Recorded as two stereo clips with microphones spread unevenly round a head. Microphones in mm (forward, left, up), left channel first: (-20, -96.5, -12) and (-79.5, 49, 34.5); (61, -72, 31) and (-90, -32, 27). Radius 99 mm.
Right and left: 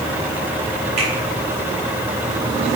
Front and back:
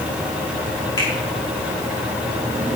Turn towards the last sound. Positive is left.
turn(degrees=55)